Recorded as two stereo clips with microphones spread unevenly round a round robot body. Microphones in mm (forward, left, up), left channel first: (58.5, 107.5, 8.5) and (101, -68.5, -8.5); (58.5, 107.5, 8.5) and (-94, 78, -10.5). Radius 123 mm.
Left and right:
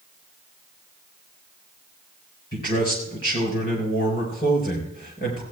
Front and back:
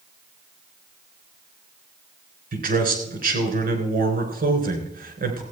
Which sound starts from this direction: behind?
A man speaking, at 2.5 s.